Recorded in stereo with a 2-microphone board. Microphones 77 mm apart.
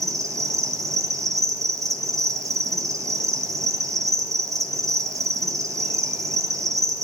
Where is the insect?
40° right (ahead or behind), 1.0 m.